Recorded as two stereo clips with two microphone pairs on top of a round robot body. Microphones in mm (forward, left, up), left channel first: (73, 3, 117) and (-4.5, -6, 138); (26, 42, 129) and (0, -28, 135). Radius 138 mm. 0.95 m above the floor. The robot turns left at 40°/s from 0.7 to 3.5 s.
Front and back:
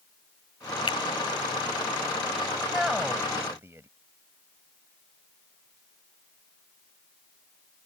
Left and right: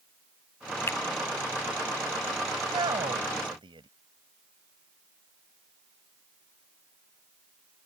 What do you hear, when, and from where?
0.9 s a finger snap: 15° left; by 1.0 s 10° left
2.6 s a man speaking: 80° right; by 3.9 s 115° right